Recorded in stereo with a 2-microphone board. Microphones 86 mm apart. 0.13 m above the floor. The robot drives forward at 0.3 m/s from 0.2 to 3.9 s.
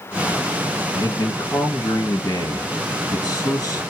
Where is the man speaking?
45° left (ahead or behind), 1.9 m; by 3.8 s 50° left (ahead or behind), 1.8 m.